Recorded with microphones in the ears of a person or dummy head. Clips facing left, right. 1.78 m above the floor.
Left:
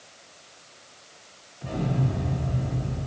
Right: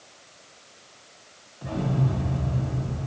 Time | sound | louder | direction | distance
1.6 | an explosion | right 1 dB | 30° right (ahead or behind) | 2 m